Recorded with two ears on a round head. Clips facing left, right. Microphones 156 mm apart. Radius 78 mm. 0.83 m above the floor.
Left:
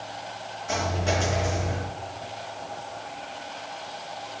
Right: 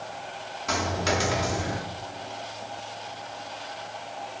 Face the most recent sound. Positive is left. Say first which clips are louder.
# even
turn(degrees=-75)  # may be behind; listen again after turning